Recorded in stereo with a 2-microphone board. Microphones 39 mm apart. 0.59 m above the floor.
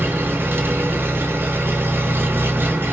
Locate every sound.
0.0 s an engine running: 75° right (ahead or behind), 0.7 m